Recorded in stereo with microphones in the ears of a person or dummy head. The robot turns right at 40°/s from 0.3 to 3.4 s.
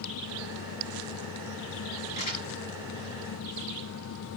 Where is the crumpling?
40° left (ahead or behind), 6 m; by 2.5 s 25° left (ahead or behind), 6 m.